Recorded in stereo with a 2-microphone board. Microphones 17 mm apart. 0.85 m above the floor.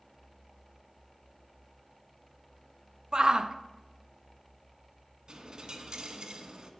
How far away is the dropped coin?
About 1.2 m.